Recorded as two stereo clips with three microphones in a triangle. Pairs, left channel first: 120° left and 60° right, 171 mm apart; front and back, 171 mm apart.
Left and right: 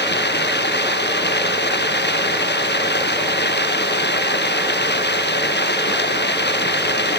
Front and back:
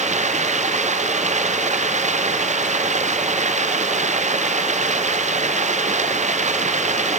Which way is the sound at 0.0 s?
135° left.